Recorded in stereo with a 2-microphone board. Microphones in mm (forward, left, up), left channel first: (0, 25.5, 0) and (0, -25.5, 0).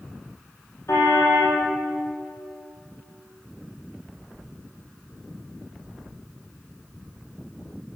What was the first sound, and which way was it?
A car horn, 65° left (ahead or behind).